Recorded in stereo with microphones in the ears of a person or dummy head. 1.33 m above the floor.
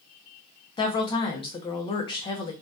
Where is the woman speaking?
20° left (ahead or behind), 0.5 m.